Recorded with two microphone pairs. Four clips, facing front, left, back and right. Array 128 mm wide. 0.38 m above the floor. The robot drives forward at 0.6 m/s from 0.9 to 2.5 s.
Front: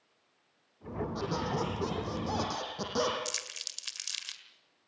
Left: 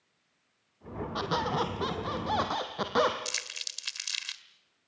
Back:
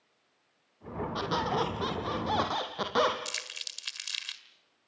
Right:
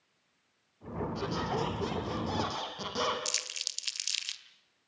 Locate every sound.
1.1 s a squeak: 125° left, 4 m; by 3.1 s 135° left, 4.5 m
3.2 s crumpling: 120° left, 1.7 m